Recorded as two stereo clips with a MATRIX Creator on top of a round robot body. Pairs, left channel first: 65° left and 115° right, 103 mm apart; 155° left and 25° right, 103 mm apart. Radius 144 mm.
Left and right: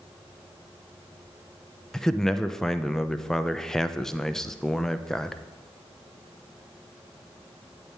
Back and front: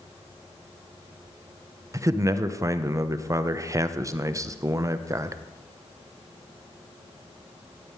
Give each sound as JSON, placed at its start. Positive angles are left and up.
{"t": 1.9, "sound": "a man speaking", "azimuth_deg": -15, "distance_m": 1.0}